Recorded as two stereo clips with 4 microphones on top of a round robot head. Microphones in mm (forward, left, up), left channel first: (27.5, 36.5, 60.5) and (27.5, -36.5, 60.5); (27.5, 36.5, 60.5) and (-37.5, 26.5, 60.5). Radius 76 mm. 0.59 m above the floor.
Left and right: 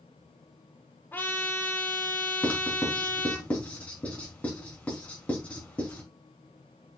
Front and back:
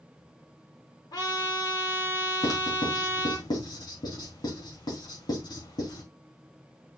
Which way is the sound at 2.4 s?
20° left.